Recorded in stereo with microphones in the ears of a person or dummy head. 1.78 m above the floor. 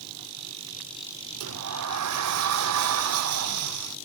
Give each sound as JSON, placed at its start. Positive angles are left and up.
{"t": 1.4, "sound": "a sliding door", "side_deg": -80}